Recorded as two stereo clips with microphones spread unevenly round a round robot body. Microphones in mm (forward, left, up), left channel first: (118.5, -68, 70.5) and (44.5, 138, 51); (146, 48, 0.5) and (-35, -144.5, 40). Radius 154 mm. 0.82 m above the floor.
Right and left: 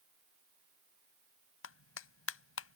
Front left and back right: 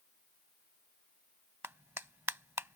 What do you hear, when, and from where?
1.6 s a clap: 50° right